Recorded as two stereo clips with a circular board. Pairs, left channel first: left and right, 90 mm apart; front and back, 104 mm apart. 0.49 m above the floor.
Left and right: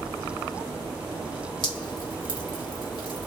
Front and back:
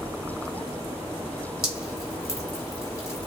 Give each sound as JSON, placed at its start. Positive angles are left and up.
{"t": 1.6, "sound": "dripping", "azimuth_deg": 60, "distance_m": 1.5}